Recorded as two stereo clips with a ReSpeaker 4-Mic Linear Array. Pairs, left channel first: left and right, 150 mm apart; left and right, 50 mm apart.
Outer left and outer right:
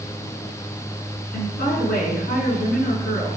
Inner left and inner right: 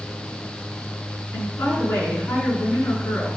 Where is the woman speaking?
85° left, 6.5 m.